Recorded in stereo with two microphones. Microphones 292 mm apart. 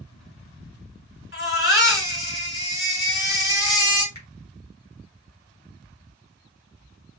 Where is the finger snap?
70° left (ahead or behind), 2.5 m.